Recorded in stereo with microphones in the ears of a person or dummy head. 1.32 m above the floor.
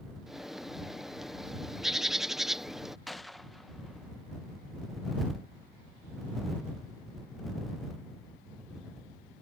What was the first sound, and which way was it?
A bird, 5° left (ahead or behind).